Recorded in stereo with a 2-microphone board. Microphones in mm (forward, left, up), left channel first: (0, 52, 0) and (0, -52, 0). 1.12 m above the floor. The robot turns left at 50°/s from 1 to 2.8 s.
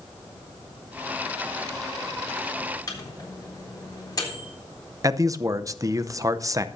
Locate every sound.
2.9 s a microwave: 35° left (ahead or behind), 3.5 m
5.0 s a man speaking: 30° right (ahead or behind), 0.6 m